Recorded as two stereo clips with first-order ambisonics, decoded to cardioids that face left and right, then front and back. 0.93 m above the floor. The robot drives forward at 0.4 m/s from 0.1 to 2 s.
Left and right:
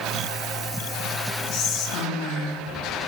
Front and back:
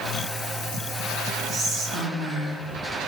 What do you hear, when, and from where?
1.5 s whispering: 125° left, 2 m